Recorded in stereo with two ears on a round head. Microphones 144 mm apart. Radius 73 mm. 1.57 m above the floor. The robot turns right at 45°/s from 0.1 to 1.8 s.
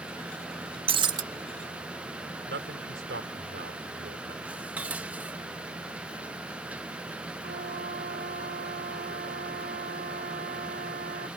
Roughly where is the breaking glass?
Right.